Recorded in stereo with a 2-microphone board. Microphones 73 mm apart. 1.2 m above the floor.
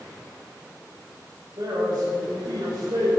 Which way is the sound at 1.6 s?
75° right (ahead or behind).